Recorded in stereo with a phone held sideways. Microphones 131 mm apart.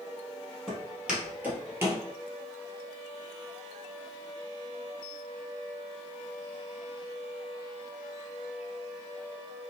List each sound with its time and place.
0.7 s footsteps: centre (ahead or behind), 1.4 m; by 2.0 s 25° right (ahead or behind), 1.1 m